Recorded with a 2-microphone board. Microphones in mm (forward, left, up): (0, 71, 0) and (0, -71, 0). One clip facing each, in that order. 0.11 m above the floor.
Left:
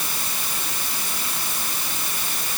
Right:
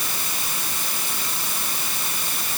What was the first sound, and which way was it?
Only background noise.